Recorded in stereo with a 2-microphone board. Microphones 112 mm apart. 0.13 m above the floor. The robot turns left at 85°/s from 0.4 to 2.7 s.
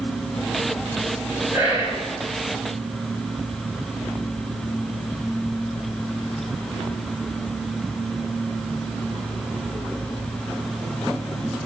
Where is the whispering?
25° right (ahead or behind), 1.8 m; by 2.0 s 20° right (ahead or behind), 1.8 m.